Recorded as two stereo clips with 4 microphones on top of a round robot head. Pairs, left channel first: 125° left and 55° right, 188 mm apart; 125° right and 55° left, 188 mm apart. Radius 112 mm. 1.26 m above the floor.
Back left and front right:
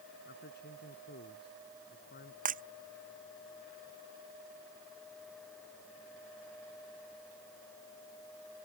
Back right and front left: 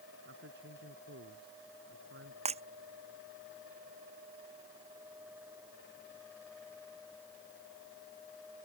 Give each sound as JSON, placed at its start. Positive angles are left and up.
{"t": 0.3, "sound": "a man speaking", "azimuth_deg": 90}
{"t": 2.5, "sound": "breaking glass", "azimuth_deg": -5}